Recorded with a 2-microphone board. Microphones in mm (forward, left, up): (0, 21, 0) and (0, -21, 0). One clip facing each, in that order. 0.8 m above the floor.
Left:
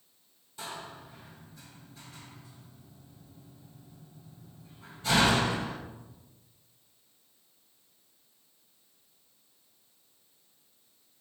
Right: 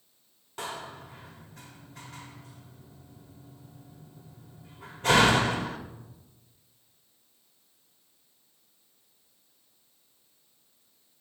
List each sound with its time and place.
0.6 s a door slam: 55° right (ahead or behind), 1.2 m